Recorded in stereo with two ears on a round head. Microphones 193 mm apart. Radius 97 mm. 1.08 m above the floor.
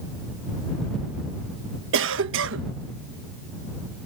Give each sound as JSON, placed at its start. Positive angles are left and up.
{"t": 1.9, "sound": "a cough", "side_deg": -65}